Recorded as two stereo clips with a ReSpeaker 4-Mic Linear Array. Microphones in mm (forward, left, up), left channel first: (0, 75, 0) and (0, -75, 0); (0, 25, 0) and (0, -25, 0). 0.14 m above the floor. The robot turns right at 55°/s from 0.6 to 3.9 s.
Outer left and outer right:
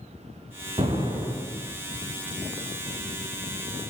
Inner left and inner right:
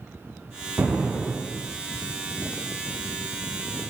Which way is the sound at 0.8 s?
45° right.